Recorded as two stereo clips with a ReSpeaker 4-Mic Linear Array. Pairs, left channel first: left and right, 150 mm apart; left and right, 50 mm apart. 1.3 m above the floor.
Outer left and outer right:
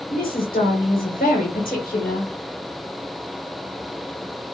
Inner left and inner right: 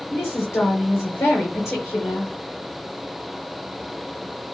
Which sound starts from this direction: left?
A woman speaking, at 0.1 s.